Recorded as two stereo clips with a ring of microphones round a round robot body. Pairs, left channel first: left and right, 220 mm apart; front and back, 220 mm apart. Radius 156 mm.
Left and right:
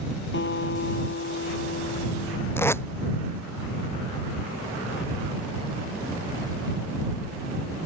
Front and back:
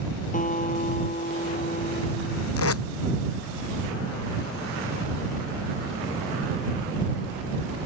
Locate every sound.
0.3 s a guitar: 55° left
2.6 s tape being pulled: 10° left